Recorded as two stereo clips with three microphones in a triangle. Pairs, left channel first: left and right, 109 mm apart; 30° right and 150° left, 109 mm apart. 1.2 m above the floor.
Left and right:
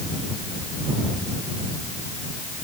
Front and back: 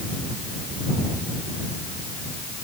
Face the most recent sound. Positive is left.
No sound to turn to.